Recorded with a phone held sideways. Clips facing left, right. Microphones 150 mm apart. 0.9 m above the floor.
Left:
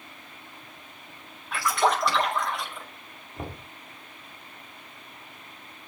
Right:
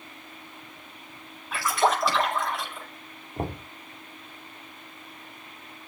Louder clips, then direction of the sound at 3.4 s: Right 6 dB; 35° right (ahead or behind).